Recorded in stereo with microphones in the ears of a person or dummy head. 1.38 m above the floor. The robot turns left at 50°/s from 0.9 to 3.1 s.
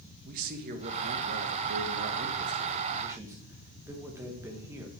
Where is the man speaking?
50° right, 1.5 m; by 4.9 s 160° right, 1.5 m.